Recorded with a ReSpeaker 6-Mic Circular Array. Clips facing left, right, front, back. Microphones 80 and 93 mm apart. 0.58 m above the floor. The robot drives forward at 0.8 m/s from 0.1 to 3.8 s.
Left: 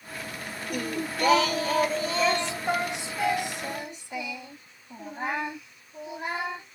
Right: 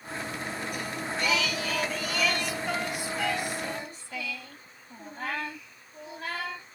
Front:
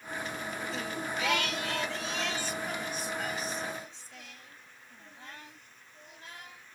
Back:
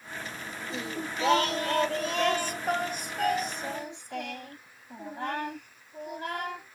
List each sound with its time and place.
0.7 s singing: 110° left; by 6.8 s 160° left